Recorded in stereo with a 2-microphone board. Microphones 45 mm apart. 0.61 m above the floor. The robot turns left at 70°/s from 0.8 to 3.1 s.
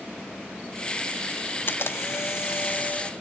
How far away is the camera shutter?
About 0.7 m.